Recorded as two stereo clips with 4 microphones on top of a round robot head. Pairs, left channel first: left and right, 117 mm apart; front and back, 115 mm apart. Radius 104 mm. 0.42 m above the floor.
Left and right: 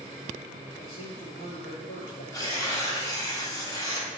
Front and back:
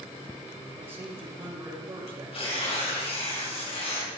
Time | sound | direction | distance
0.8 | a man speaking | 120° left | 5.5 m
2.3 | tearing paper | 30° left | 5 m